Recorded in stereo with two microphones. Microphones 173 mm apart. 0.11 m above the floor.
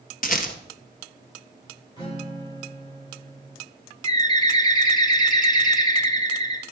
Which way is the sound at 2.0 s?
25° left (ahead or behind).